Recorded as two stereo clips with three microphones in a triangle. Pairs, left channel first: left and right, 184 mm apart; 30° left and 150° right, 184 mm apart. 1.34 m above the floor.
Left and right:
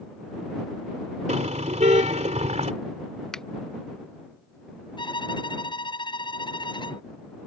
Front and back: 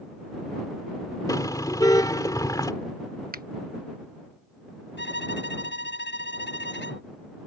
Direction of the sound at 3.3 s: 175° left.